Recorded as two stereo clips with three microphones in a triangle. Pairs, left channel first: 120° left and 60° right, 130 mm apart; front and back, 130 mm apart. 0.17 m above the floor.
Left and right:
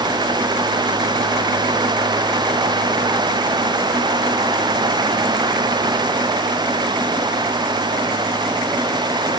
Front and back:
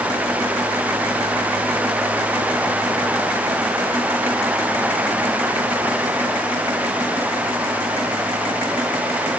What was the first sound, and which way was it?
Only background noise.